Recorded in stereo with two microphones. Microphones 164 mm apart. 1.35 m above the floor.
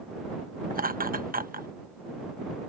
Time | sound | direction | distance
0.7 | laughter | 60° right (ahead or behind) | ?